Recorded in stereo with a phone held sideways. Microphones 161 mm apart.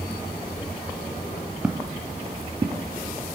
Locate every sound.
1.6 s footsteps: 10° right (ahead or behind), 0.9 m; by 2.9 s 40° right (ahead or behind), 1.1 m